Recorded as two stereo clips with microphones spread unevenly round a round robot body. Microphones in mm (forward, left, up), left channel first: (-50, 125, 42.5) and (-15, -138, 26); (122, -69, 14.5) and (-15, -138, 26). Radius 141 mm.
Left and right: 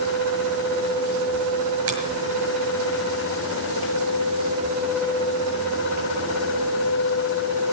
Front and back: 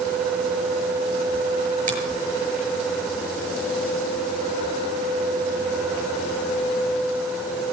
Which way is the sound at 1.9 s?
115° right.